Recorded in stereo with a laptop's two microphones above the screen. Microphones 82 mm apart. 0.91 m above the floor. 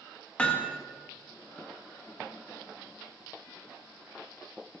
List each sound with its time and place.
0.4 s hammering: 15° left (ahead or behind), 1.0 m